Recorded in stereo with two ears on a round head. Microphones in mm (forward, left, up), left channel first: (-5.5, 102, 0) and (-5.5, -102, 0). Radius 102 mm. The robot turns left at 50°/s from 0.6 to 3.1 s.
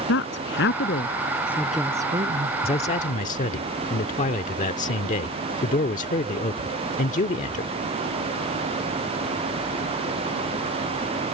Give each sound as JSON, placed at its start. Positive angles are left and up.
{"t": 0.1, "sound": "a woman speaking", "side_deg": 55}
{"t": 2.6, "sound": "a man speaking", "side_deg": 25}